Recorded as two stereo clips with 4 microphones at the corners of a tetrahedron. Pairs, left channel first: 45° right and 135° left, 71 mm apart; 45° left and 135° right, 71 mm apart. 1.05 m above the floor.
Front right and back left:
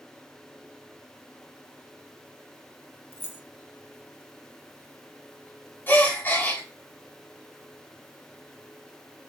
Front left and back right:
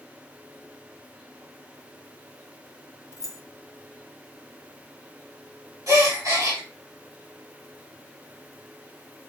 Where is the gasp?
105° right, 2.5 m.